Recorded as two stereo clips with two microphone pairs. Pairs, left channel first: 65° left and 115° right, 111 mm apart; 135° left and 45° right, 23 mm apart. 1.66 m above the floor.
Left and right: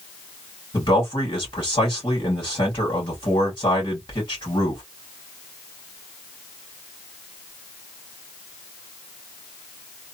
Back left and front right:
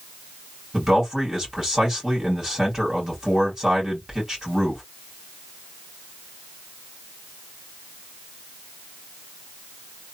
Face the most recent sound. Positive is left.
turn(degrees=20)